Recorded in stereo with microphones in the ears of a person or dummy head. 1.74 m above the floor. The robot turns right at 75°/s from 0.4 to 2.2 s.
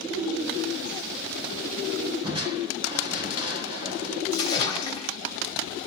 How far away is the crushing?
About 1.6 m.